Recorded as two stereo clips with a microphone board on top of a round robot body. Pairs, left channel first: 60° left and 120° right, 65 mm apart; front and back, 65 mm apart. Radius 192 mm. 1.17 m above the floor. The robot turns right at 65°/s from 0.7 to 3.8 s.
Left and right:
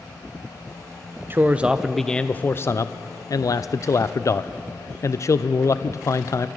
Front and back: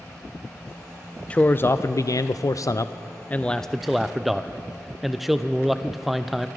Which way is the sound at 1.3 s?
70° right.